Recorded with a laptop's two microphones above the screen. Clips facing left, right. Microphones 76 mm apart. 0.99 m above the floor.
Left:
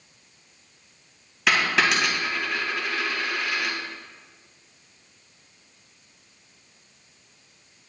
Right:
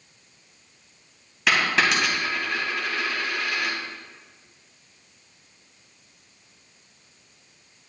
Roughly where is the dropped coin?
Centre.